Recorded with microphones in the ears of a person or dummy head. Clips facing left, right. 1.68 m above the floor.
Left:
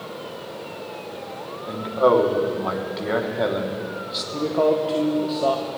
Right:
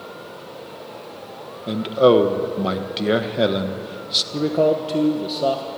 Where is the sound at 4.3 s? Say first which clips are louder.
Right 2 dB; 15° right (ahead or behind), 1.1 m.